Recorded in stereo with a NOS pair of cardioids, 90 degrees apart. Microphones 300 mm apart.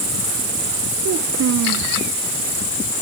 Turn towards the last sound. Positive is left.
turn(degrees=-60)